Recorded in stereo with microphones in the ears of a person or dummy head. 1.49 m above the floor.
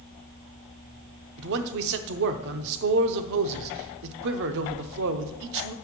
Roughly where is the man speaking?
Right.